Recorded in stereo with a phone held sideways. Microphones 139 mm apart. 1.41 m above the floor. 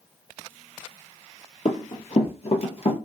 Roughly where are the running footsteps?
Left.